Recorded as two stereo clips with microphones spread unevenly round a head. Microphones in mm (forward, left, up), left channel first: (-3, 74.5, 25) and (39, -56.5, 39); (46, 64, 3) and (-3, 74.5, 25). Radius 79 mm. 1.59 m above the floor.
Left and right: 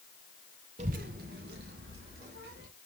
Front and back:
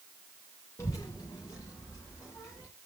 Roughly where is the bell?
I don't hear a bell.